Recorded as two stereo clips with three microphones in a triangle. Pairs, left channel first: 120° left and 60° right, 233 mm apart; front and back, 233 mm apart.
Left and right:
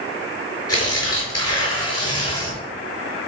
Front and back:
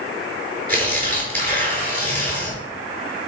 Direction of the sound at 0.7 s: 125° left.